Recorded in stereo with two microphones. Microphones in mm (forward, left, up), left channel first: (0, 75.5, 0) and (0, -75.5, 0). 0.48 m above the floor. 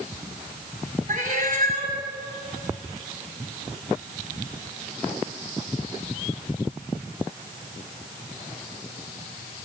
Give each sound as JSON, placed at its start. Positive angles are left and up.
{"t": 1.1, "sound": "a cat meowing", "side_deg": -60, "distance_m": 1.7}